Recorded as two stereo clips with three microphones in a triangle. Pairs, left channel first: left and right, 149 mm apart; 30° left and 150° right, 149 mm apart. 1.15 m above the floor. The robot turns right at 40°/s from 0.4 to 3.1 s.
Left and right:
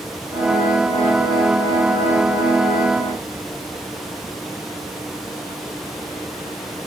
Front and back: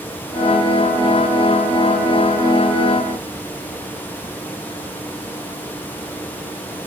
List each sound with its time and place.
Only background noise.